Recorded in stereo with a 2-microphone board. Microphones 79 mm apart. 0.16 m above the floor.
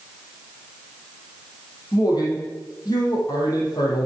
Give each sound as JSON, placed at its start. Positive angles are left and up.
{"t": 1.9, "sound": "a man speaking", "side_deg": 55, "distance_m": 5.0}